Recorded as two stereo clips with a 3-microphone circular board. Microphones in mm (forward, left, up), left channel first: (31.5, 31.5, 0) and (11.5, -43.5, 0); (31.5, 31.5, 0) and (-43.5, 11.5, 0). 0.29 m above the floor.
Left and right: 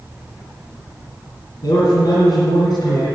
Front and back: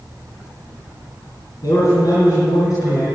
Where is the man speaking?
50° left, 3.5 m.